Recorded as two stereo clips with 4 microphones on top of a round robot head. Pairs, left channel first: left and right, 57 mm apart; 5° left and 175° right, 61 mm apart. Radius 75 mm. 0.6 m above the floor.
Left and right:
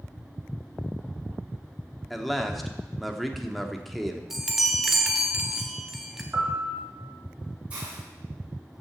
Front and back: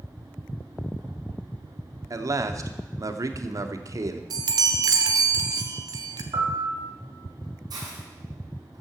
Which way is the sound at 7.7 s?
160° right.